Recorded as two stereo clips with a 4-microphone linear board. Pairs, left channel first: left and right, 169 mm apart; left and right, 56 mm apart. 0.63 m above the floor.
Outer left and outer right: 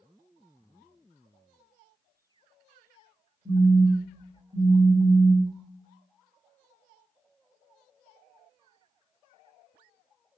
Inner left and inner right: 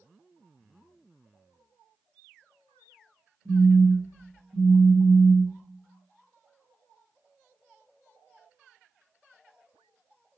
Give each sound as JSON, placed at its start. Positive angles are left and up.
{"t": 3.5, "sound": "a phone buzzing", "side_deg": -30, "distance_m": 1.6}